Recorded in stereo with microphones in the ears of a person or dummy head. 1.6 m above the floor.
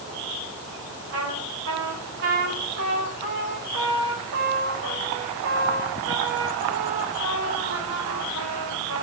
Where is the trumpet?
75° right (ahead or behind), 5 m.